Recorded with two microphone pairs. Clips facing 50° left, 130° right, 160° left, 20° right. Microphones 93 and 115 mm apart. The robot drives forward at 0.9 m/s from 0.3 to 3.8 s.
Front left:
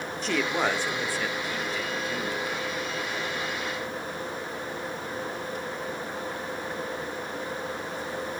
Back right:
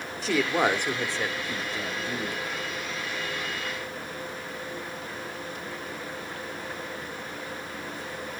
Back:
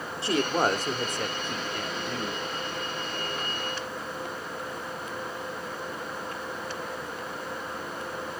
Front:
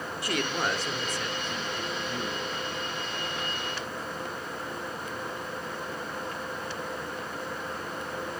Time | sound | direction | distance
0.2 | a woman speaking | 145° left | 0.9 m